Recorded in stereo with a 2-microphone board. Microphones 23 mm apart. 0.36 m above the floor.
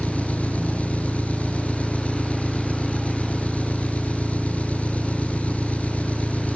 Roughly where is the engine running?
Left.